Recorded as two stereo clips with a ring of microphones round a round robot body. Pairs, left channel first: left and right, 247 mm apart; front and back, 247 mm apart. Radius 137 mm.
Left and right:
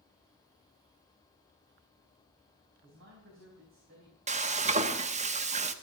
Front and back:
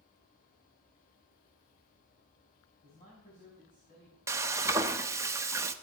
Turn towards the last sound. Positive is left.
turn(degrees=-115)